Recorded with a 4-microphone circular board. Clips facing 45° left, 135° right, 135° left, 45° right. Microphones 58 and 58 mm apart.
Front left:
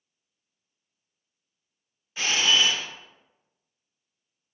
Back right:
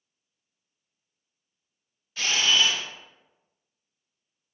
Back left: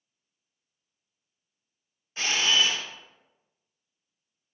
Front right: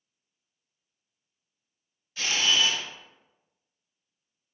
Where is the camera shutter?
100° left, 0.6 m.